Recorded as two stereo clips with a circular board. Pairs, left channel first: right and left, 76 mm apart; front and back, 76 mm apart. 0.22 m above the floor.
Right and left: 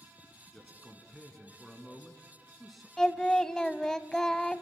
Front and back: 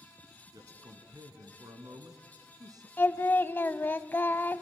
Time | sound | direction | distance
0.5 | a man speaking | straight behind | 2.5 m
3.0 | singing | 15° right | 0.8 m